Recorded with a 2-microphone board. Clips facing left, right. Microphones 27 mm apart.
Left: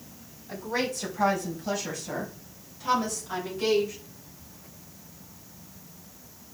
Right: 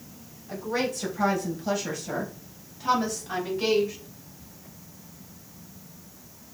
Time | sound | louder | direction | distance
0.5 | a woman speaking | right 1 dB | centre (ahead or behind) | 4 m